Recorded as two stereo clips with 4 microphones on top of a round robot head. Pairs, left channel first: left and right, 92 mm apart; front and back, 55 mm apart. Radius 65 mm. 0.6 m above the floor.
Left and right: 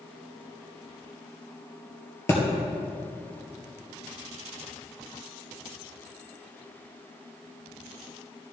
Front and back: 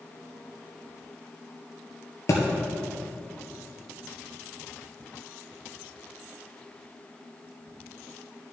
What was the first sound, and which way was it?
A thud, 30° left.